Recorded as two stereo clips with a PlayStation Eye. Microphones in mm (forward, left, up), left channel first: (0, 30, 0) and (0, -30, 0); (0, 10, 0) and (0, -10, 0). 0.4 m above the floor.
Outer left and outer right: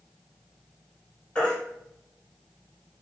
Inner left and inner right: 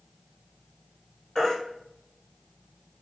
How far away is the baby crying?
About 3.5 m.